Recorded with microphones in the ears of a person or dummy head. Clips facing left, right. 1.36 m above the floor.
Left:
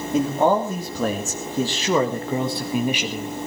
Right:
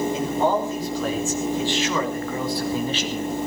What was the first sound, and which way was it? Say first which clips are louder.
A man speaking: left 8 dB; 50° left (ahead or behind).